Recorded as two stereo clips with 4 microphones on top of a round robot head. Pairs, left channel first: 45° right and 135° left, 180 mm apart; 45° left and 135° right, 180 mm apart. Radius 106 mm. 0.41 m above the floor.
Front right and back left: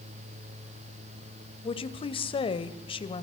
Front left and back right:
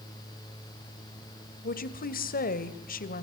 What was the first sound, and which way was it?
A woman speaking, 15° left.